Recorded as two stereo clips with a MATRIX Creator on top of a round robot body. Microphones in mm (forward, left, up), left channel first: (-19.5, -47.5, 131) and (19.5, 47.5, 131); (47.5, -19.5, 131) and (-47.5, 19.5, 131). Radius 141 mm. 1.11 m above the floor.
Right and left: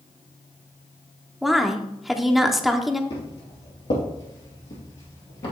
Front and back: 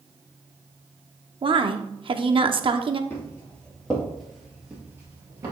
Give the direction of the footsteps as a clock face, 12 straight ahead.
3 o'clock.